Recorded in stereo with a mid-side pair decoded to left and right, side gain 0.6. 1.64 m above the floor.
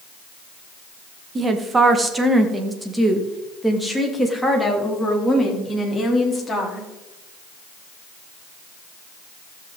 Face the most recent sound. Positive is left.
turn(degrees=15)